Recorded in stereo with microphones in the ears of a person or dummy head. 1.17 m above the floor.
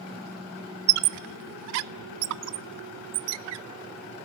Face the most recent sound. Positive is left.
turn(degrees=-70)  # may be behind; listen again after turning